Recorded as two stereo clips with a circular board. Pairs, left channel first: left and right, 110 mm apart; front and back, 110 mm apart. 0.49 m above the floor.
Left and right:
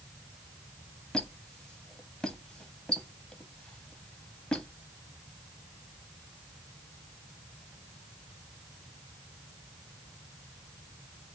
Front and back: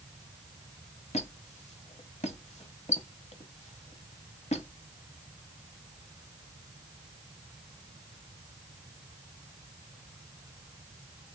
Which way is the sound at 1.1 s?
5° left.